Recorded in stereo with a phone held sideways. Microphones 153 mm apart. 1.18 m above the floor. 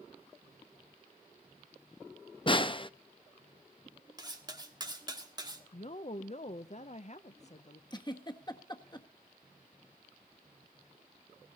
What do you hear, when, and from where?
2.5 s a snare drum: 35° left (ahead or behind), 0.6 m
4.2 s cutlery clinking: 30° right (ahead or behind), 1.7 m
5.7 s a woman speaking: 50° left (ahead or behind), 0.6 m
7.9 s a giggle: 30° left (ahead or behind), 1.3 m